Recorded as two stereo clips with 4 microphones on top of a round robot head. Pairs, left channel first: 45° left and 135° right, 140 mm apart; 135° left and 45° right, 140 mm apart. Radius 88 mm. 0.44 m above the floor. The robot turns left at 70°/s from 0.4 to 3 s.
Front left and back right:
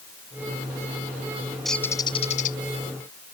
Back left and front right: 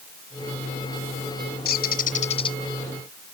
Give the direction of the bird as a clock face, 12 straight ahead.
7 o'clock.